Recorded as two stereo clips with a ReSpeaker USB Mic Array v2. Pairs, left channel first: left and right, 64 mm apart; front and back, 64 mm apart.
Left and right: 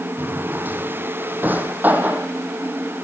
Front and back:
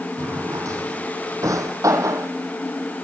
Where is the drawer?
150° right, 1.9 m.